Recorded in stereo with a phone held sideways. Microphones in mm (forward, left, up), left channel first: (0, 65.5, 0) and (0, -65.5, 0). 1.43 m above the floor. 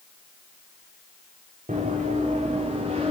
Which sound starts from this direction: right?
Running footsteps, at 1.7 s.